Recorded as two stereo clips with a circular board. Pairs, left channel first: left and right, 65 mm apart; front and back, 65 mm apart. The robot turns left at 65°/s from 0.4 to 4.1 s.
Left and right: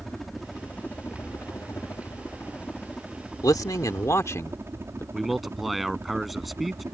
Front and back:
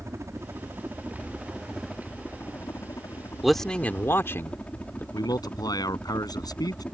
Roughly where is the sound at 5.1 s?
Ahead.